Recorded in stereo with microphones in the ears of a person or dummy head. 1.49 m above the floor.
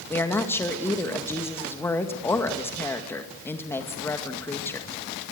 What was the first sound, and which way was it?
A woman speaking, 15° left (ahead or behind).